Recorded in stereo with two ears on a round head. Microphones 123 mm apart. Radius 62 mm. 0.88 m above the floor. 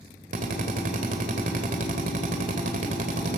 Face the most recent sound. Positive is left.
turn(degrees=-65)  # may be behind; listen again after turning